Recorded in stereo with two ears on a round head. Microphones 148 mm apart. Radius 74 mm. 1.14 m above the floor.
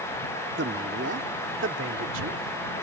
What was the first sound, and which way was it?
A man speaking, 65° right (ahead or behind).